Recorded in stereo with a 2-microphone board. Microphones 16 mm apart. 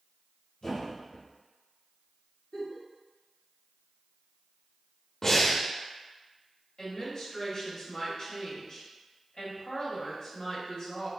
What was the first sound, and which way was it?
A thud, 85° left.